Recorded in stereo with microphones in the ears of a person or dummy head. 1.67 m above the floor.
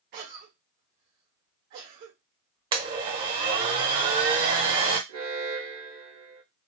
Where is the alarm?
45° right (ahead or behind), 1.2 m.